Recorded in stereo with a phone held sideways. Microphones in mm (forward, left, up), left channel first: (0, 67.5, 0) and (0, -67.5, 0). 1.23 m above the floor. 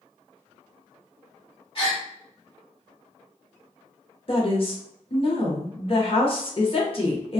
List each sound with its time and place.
1.8 s a gasp: 45° left (ahead or behind), 1.4 m
4.3 s a woman speaking: 45° left (ahead or behind), 0.7 m